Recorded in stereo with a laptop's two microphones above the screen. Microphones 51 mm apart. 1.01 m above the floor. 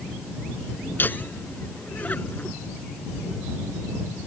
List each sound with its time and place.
1.0 s laughter: 40° left (ahead or behind); by 2.6 s 30° left (ahead or behind)